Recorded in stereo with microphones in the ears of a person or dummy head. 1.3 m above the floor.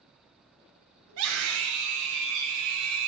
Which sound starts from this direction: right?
A scream, at 1.1 s.